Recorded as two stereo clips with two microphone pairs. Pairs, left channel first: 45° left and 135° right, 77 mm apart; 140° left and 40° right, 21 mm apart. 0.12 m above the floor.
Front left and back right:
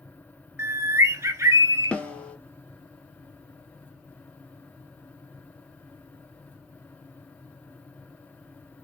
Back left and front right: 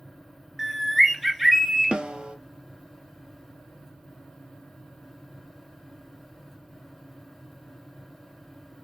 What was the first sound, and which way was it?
A bird, 120° right.